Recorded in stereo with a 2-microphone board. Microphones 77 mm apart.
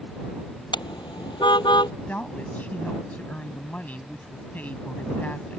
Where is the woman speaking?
20° left (ahead or behind).